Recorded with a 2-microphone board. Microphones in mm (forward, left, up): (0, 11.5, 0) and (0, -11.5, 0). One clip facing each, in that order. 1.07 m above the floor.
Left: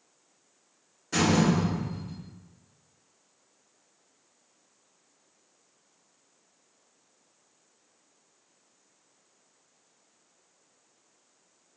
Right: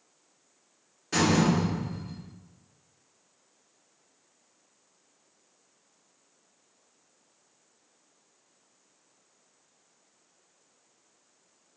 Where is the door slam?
30° right (ahead or behind), 1.5 m.